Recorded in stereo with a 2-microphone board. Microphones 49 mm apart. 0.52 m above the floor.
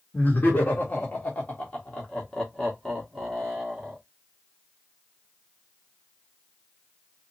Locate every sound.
0.1 s laughter: 45° left (ahead or behind), 1.7 m; by 4.0 s 10° right (ahead or behind), 1.7 m